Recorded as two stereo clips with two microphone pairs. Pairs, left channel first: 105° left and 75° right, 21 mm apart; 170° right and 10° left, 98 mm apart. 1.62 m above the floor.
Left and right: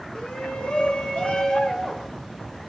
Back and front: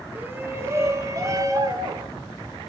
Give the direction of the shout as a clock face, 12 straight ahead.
9 o'clock.